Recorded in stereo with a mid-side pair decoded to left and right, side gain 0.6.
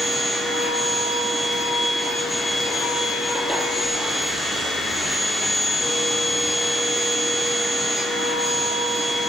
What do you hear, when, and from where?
0.0 s a machine running: straight ahead, 6 m